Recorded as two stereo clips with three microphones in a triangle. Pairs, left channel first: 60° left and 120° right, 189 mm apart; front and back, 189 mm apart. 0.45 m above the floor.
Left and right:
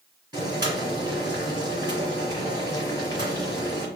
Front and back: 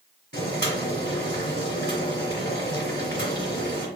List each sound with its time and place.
0.3 s boiling: 175° left, 2.0 m